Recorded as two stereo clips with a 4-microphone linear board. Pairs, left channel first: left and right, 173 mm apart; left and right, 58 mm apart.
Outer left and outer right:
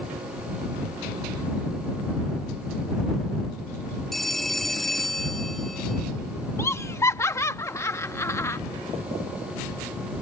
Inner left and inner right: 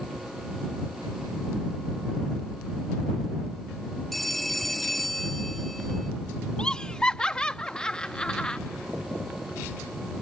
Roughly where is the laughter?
Centre.